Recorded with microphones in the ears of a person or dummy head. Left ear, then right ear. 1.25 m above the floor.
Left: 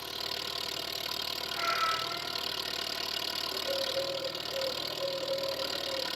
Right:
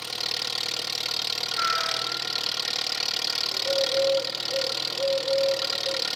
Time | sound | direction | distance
0.0 | an engine running | 45° right (ahead or behind) | 1.2 m
1.5 | a cat meowing | 65° right (ahead or behind) | 5.5 m
3.5 | a bird | 75° right (ahead or behind) | 4 m